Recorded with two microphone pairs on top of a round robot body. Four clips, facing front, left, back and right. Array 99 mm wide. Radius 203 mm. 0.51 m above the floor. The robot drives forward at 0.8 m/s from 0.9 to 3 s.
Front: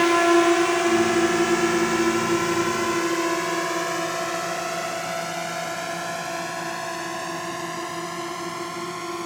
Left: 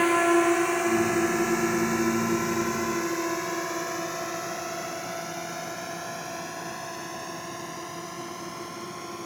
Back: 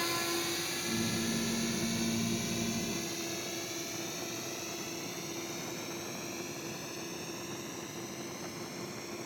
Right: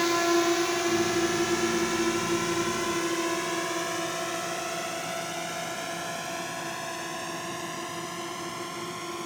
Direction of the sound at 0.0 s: 15° left.